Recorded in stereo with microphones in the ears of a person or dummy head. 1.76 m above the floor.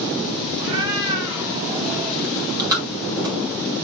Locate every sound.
0.6 s a cat meowing: 25° right (ahead or behind), 4.5 m; by 2.1 s 15° right (ahead or behind), 4.5 m
2.2 s chewing: 20° right (ahead or behind), 4.5 m